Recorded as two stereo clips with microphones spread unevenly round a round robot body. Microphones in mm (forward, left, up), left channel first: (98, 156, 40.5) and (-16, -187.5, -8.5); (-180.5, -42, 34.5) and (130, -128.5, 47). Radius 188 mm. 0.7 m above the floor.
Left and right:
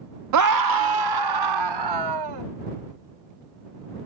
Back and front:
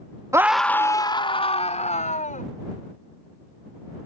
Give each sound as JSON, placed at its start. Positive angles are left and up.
{"t": 0.3, "sound": "a scream", "azimuth_deg": -95}